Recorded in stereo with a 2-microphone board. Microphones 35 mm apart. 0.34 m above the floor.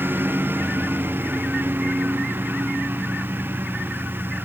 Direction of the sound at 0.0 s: 80° right.